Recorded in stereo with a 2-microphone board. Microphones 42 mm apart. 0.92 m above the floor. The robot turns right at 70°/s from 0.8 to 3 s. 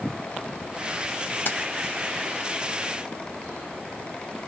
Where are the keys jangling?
50° left (ahead or behind), 0.6 m; by 1.6 s 45° left (ahead or behind), 0.6 m.